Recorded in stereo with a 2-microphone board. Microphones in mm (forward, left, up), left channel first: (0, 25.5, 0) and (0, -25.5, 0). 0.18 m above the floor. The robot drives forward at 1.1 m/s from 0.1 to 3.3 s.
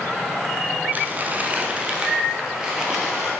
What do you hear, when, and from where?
0.9 s crumpling: 35° right (ahead or behind), 0.8 m; by 3.3 s 10° right (ahead or behind), 3 m